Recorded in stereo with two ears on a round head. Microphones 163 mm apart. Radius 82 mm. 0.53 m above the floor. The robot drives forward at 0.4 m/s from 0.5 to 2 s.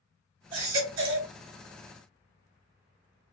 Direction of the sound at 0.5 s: 75° right (ahead or behind).